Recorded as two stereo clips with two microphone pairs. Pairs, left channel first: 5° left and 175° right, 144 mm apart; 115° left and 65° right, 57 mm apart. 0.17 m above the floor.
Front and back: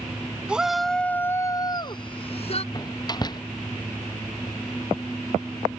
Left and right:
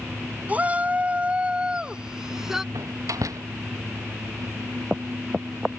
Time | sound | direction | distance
0.5 | a shout | 95° right | ?
2.7 | a door slam | 55° right | ?